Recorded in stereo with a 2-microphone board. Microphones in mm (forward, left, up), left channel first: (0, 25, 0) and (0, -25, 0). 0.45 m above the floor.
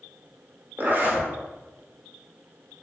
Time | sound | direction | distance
0.8 | a zipper | 40° right (ahead or behind) | 0.8 m